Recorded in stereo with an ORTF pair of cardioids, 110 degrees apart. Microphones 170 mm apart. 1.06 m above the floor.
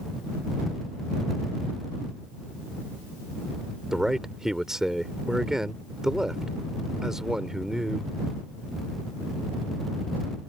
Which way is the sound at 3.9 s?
5° right.